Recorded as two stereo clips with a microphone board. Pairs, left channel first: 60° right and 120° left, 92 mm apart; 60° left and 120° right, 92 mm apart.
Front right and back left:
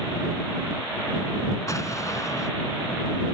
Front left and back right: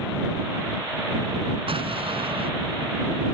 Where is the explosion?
115° right.